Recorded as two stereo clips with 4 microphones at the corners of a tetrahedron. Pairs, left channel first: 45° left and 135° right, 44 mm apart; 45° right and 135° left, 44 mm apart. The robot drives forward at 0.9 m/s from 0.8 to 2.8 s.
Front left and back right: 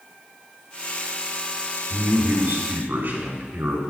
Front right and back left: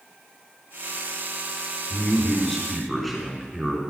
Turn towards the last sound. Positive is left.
turn(degrees=-135)